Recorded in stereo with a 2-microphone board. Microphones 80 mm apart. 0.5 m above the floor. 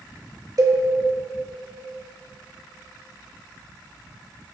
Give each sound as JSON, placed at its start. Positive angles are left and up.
{"t": 0.6, "sound": "a cowbell", "side_deg": -45, "distance_m": 1.0}